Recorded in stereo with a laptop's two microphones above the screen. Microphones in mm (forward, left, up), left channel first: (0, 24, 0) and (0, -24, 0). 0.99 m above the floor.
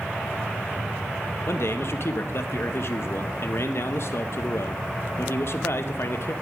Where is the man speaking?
55° left (ahead or behind), 0.8 m.